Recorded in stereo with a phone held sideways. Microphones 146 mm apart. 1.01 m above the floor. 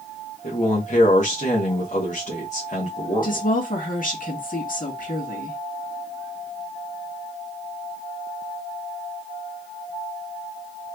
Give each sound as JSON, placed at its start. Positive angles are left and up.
{"t": 0.4, "sound": "a man speaking", "side_deg": 60, "distance_m": 1.3}
{"t": 3.2, "sound": "a woman speaking", "side_deg": 70, "distance_m": 1.8}